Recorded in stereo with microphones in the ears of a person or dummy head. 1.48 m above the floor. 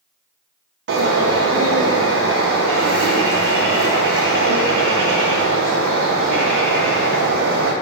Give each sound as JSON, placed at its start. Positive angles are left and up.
{"t": 0.9, "sound": "a bird", "side_deg": -65, "distance_m": 0.6}